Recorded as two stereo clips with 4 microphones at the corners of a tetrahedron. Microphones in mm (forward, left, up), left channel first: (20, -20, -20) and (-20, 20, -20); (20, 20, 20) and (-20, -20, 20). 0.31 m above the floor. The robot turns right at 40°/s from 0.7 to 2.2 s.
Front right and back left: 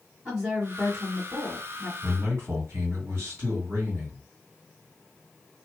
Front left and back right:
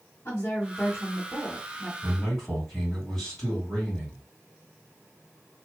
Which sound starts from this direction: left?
A man speaking, at 2.0 s.